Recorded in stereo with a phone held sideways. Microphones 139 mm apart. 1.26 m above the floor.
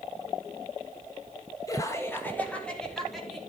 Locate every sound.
1.7 s laughter: 25° left (ahead or behind), 2 m; by 3.4 s centre (ahead or behind), 3 m